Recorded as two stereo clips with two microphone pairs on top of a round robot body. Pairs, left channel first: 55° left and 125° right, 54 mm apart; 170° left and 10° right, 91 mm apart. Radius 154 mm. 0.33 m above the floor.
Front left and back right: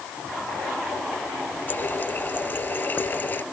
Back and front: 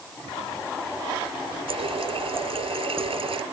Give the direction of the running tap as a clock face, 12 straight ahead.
12 o'clock.